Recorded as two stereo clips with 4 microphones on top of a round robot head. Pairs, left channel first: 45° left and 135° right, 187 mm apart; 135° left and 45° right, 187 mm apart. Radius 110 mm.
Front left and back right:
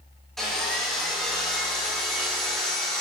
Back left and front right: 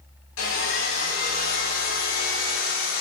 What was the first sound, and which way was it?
Sawing, 135° left.